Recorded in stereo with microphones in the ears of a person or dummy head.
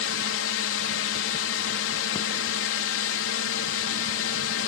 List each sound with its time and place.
0.0 s a drone: 65° left (ahead or behind)